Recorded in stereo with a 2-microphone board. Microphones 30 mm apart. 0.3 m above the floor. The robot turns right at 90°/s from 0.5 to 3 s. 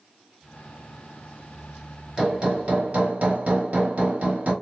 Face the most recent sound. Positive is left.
turn(degrees=-80)